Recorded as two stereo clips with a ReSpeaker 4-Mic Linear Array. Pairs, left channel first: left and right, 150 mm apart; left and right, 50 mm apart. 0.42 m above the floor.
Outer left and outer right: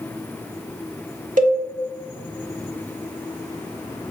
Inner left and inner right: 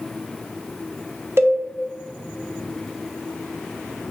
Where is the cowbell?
60° right (ahead or behind), 0.7 m.